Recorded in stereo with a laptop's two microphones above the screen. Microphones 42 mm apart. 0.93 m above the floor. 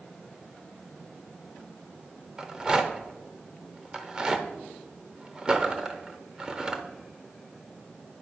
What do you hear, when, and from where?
2.4 s a rattle: 20° right (ahead or behind), 0.8 m